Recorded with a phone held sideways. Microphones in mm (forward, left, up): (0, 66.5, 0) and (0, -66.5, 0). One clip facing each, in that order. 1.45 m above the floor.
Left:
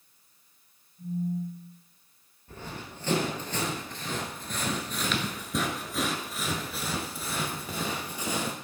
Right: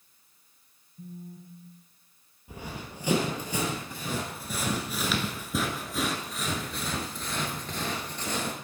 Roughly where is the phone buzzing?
Right.